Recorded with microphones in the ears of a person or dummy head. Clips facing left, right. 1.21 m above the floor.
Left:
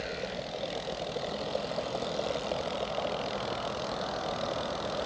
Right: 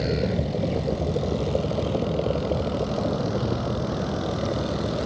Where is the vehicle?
55° right (ahead or behind); by 5.1 s 45° right (ahead or behind).